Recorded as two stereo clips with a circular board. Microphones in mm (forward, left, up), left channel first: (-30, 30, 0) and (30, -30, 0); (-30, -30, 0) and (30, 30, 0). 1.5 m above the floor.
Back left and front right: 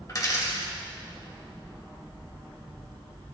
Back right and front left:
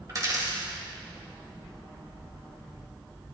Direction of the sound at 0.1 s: 90° left.